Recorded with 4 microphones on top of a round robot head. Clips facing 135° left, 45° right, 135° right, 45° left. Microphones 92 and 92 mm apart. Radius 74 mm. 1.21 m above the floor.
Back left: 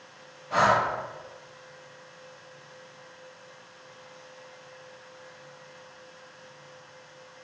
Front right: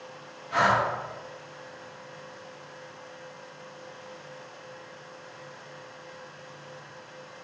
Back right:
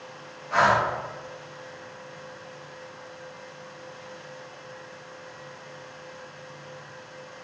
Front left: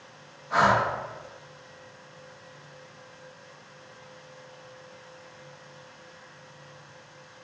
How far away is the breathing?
About 3 m.